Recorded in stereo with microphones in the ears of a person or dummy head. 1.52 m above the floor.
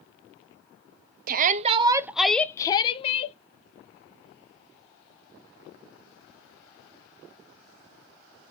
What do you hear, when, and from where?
1.3 s a shout: 55° right (ahead or behind), 0.6 m; by 3.4 s 40° left (ahead or behind), 0.9 m